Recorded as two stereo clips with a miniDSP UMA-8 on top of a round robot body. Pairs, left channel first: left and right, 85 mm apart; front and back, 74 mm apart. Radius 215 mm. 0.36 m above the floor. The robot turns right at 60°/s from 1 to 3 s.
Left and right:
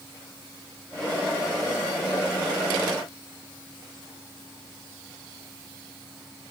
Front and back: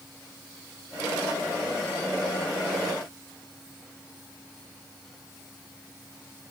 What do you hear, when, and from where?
Only background noise.